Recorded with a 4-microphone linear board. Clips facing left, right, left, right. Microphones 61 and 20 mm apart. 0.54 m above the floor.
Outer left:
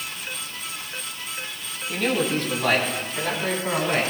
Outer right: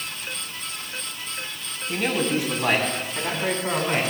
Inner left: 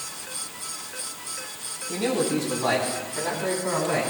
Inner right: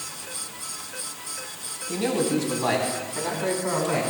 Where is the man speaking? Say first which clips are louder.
Even, even; 10° right (ahead or behind), 3 m.